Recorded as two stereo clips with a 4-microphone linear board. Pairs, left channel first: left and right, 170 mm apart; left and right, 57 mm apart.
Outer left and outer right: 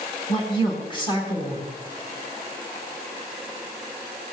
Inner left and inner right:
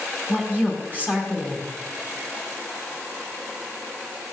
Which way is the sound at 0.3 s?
30° left (ahead or behind).